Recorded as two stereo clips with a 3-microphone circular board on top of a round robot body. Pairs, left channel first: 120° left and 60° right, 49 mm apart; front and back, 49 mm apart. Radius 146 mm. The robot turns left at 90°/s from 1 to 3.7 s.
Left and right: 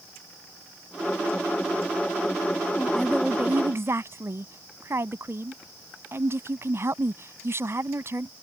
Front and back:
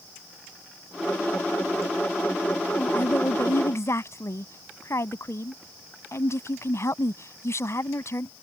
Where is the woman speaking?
55° left; by 8.3 s 25° right.